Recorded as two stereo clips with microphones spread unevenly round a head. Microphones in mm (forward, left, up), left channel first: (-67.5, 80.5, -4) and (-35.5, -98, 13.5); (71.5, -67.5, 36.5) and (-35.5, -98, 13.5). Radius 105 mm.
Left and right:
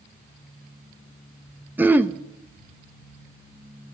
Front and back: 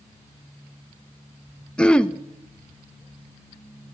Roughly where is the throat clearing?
Ahead.